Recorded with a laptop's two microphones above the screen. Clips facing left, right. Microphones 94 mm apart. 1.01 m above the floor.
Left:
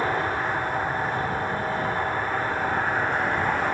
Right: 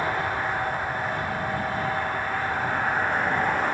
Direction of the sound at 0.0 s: 35° left (ahead or behind).